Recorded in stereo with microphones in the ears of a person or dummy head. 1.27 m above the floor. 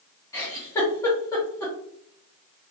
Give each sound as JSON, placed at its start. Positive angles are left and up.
{"t": 0.3, "sound": "a giggle", "side_deg": 20, "distance_m": 1.0}